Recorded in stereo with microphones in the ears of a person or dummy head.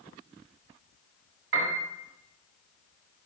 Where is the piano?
65° right (ahead or behind), 2 m.